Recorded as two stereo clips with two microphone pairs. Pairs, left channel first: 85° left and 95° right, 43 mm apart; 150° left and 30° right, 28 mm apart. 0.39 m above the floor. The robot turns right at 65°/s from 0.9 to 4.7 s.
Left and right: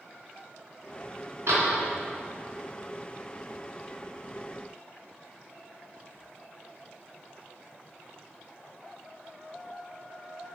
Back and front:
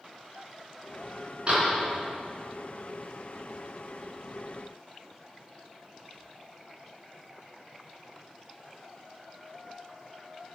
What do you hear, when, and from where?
1.5 s a door slam: 80° right, 3.5 m; by 1.8 s 60° right, 3.5 m